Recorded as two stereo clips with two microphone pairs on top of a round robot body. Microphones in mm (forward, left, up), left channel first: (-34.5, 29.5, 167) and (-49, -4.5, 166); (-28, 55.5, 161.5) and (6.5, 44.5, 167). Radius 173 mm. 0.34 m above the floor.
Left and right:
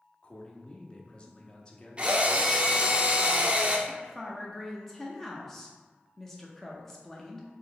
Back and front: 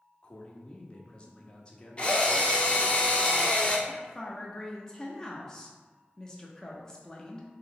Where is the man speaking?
125° left, 1.1 m.